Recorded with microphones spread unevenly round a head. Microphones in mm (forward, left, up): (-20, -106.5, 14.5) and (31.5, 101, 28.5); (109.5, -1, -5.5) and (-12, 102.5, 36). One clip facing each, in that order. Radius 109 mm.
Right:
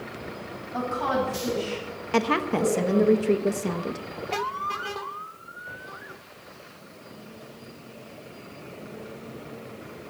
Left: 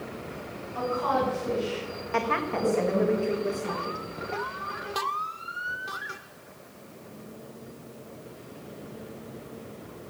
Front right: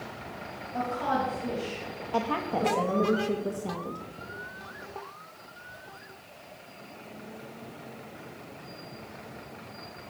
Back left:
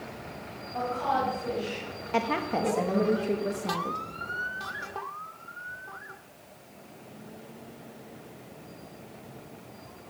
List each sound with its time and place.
0.7 s a woman speaking: 95° right, 7.5 m
2.1 s a woman speaking: 135° right, 1.2 m